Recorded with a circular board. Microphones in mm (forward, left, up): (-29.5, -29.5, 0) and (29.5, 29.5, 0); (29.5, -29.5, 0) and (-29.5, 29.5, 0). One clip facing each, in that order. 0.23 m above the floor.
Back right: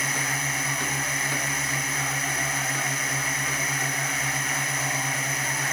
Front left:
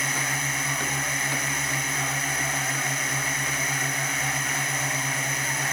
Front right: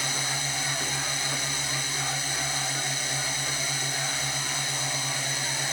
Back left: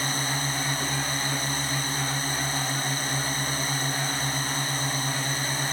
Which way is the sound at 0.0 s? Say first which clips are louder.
Even, back left 3 dB; 135° left.